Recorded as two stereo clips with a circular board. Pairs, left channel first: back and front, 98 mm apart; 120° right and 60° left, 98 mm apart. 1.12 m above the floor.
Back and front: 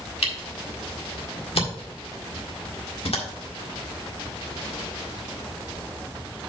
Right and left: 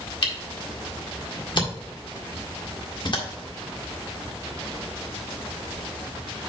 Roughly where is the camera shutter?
Behind.